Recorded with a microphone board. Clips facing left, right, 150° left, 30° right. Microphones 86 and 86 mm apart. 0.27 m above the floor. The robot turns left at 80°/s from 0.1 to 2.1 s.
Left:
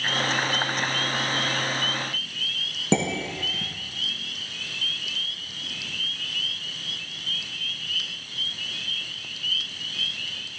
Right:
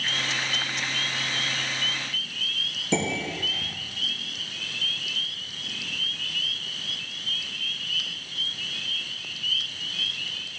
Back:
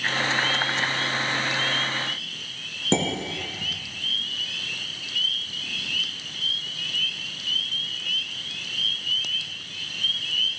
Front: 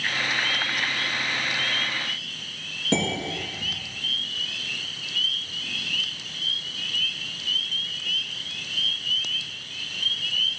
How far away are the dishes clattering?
About 2.5 m.